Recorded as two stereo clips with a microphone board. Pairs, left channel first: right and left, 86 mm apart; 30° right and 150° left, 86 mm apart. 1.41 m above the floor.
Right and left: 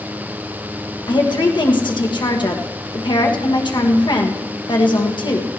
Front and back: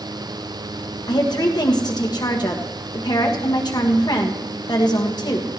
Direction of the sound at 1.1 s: 65° right.